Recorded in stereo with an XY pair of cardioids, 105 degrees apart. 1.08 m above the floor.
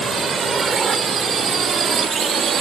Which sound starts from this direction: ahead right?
A drone, at 0.0 s.